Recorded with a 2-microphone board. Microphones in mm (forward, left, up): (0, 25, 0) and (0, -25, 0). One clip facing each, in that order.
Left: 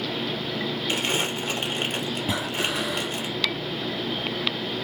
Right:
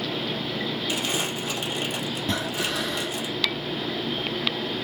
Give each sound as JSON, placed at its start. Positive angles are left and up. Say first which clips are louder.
{"t": 0.9, "sound": "crumpling", "louder": "left 4 dB", "side_deg": 45, "distance_m": 3.5}
{"t": 2.3, "sound": "breathing", "louder": "even", "side_deg": 10, "distance_m": 1.4}